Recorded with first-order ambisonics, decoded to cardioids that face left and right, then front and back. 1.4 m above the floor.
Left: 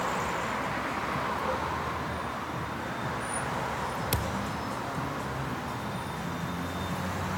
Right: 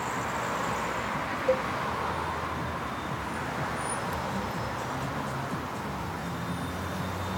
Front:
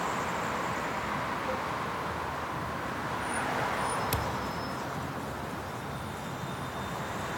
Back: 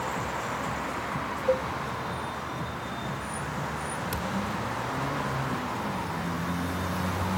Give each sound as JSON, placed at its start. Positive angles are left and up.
{"t": 1.5, "sound": "a cowbell", "azimuth_deg": -140}
{"t": 4.1, "sound": "a thud", "azimuth_deg": 75}